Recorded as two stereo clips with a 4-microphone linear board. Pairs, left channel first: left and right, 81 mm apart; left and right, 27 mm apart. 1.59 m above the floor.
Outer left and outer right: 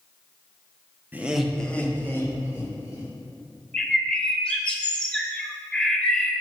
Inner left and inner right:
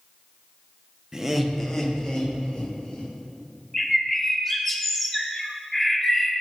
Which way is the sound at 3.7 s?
10° left (ahead or behind).